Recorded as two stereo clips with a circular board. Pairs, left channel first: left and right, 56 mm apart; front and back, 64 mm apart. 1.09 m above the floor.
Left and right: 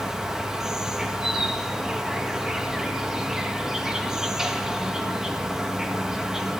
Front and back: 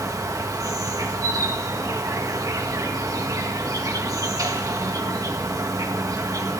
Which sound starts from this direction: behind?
An insect, at 0.0 s.